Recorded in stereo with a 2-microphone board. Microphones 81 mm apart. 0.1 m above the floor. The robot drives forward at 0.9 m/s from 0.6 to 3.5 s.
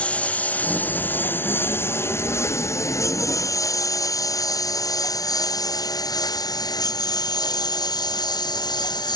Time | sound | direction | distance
0.0 | a lawn mower | 15° left (ahead or behind) | ?